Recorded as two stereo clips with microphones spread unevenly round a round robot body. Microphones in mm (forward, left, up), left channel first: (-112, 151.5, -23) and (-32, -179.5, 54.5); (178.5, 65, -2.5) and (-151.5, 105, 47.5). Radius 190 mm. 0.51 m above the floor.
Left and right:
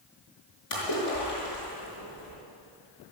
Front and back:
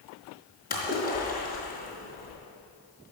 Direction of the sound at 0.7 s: 60° left.